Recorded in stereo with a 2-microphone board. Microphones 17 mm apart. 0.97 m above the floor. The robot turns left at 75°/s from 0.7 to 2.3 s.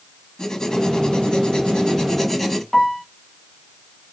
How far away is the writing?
About 1.1 m.